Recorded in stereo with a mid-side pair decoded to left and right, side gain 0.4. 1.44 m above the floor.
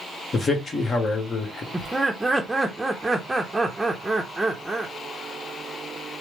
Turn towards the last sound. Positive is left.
turn(degrees=-10)